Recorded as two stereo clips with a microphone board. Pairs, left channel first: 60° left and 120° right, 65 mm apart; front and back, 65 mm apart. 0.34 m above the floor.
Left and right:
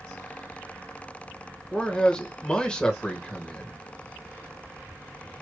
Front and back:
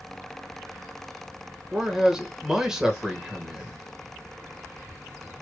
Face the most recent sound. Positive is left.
turn(degrees=110)